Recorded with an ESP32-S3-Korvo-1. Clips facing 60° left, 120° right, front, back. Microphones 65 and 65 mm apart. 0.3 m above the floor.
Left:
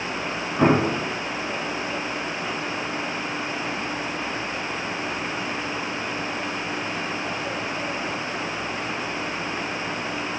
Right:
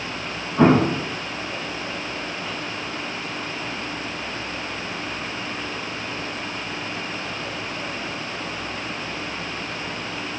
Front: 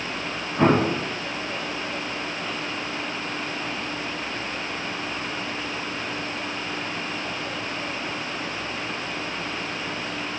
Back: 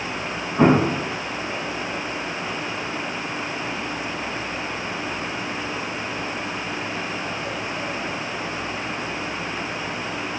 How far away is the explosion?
About 4 m.